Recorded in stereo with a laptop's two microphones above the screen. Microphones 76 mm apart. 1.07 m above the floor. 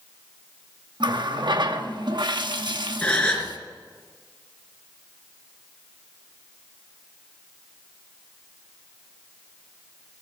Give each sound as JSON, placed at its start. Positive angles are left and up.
{"t": 1.0, "sound": "a running tap", "side_deg": -75, "distance_m": 1.0}
{"t": 3.0, "sound": "a gasp", "side_deg": 15, "distance_m": 3.5}